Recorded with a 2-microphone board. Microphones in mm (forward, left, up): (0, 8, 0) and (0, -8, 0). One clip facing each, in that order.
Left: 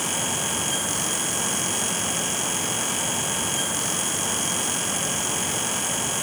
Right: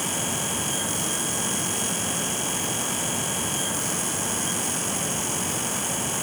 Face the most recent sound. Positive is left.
No sound to turn to.